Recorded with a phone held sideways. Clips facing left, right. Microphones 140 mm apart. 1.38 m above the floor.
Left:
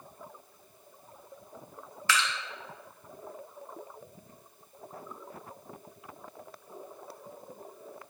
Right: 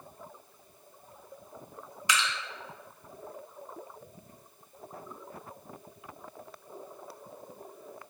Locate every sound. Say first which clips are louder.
2.1 s dripping: left 1 dB; 20° right (ahead or behind), 0.7 m